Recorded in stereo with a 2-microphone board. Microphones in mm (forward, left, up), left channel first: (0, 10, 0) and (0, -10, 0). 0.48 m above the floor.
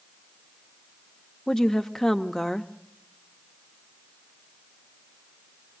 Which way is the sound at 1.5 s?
25° left (ahead or behind).